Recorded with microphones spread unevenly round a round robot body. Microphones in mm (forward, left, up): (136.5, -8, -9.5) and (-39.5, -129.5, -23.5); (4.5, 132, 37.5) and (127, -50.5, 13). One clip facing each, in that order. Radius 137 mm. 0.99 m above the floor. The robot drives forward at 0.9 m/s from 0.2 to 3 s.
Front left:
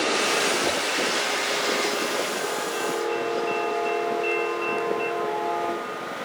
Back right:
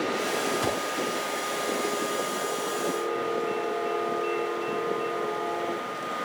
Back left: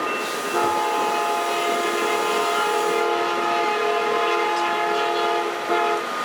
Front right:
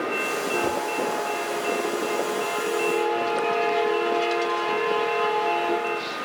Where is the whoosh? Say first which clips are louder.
Front left 2 dB, back left 4 dB; 135° right, 3.5 m; by 0.8 s 140° right, 4 m.